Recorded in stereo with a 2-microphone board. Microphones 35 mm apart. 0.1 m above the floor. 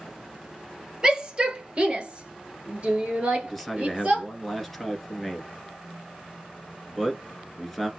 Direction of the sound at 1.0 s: 20° right (ahead or behind).